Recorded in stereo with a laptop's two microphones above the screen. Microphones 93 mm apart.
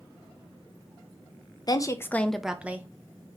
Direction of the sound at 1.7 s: 40° left (ahead or behind).